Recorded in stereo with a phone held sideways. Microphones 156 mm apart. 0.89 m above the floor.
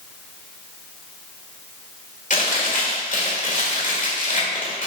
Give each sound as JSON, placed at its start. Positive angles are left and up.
{"t": 2.3, "sound": "chewing", "side_deg": 55, "distance_m": 1.6}